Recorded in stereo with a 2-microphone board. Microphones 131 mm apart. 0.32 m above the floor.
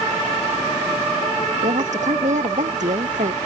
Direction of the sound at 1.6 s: 65° right (ahead or behind).